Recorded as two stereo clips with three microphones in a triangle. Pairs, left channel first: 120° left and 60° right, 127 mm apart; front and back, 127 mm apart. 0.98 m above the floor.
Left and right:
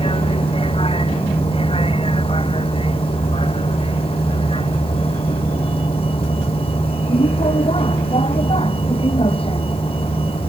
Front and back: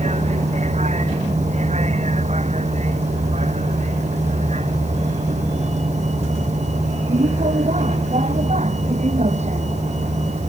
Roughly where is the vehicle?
Behind.